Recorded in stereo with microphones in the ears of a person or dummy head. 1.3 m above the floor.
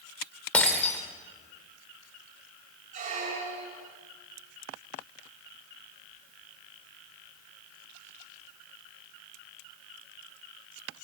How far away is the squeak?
About 1.7 m.